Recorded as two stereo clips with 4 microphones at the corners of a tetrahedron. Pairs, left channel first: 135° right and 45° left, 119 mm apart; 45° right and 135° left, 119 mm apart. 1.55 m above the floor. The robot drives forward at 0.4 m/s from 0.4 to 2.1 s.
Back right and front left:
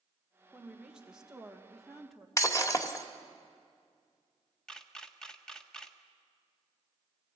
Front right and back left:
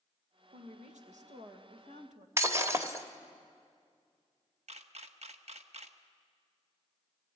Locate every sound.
0.5 s a woman speaking: 125° left, 2.0 m; by 2.3 s 135° left, 2.5 m
2.4 s breaking glass: 175° right, 1.5 m
4.7 s a camera shutter: 140° left, 1.2 m